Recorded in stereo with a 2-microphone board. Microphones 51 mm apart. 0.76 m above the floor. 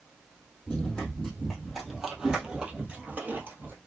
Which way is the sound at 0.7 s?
15° left (ahead or behind).